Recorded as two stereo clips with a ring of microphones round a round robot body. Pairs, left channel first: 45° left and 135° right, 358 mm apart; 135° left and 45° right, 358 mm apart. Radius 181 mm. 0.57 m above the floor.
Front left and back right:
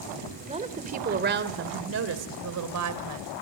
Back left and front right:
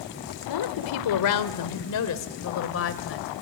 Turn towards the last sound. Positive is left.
turn(degrees=-170)